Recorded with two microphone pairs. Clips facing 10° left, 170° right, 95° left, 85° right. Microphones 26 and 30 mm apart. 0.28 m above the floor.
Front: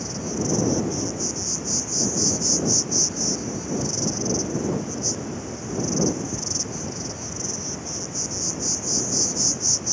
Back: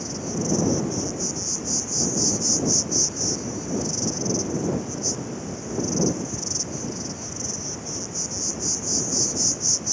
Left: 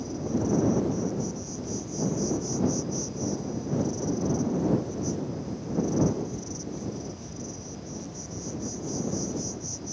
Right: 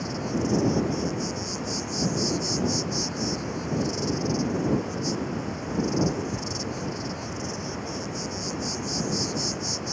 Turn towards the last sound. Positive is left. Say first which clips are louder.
# front 1 dB, right 1 dB
turn(degrees=-75)